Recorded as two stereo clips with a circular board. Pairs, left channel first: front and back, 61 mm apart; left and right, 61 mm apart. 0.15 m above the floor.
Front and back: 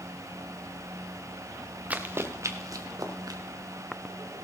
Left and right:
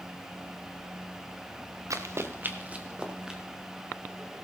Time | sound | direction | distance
1.9 | running footsteps | 115° right | 1.3 m